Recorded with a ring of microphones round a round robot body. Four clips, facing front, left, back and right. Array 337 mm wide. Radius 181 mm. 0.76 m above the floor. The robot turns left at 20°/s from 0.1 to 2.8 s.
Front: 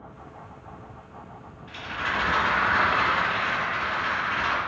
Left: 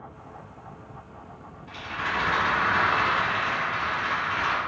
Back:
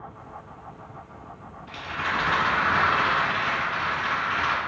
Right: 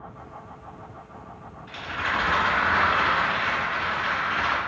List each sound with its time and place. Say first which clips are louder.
1.7 s a rattle: right 2 dB, back 1 dB; 125° right, 2.0 m; by 4.6 s 150° right, 2.0 m